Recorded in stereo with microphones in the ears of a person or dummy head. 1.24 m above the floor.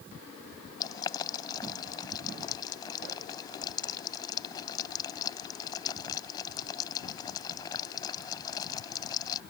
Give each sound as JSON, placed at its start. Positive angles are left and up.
{"t": 0.8, "sound": "boiling", "side_deg": 25}